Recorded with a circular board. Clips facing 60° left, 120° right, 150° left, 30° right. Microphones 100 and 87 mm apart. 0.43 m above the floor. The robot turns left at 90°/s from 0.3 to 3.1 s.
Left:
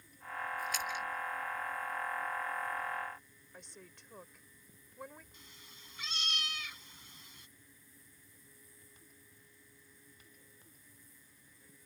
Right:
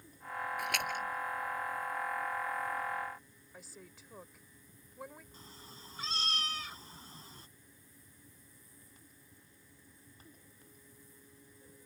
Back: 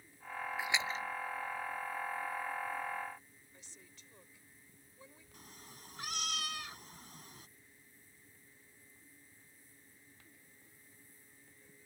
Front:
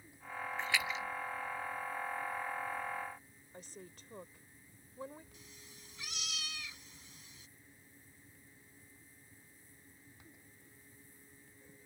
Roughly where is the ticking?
No ticking in this recording.